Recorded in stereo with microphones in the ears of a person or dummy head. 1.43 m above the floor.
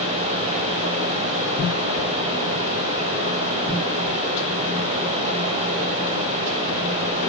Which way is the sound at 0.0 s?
35° right (ahead or behind).